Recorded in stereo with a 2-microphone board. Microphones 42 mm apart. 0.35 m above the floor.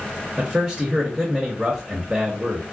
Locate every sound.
0.4 s a man speaking: 15° right (ahead or behind), 0.9 m